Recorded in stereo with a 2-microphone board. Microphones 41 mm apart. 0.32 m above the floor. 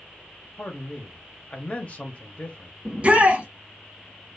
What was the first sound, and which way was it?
A man speaking, 30° left (ahead or behind).